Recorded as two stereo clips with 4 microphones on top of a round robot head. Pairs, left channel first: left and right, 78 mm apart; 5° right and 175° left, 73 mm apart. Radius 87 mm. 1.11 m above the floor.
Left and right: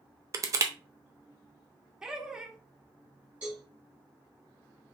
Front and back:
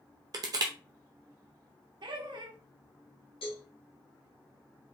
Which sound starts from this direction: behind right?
Crushing, at 0.3 s.